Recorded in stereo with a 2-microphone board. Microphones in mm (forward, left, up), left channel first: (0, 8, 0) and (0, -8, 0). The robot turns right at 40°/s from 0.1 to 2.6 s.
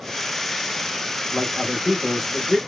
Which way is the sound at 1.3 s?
20° right (ahead or behind).